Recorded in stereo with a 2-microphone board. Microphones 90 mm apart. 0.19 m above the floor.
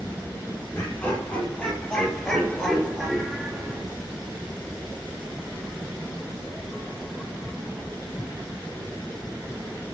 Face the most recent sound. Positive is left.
turn(degrees=-10)  # may be behind; listen again after turning